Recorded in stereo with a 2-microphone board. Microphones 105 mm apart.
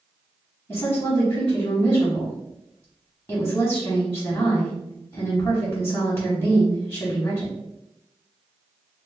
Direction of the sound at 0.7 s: 25° left (ahead or behind).